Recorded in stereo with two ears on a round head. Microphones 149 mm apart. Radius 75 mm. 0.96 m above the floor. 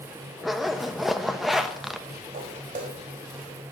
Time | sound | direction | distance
0.4 | a zipper | centre (ahead or behind) | 1.0 m
2.3 | footsteps | 45° right (ahead or behind) | 4 m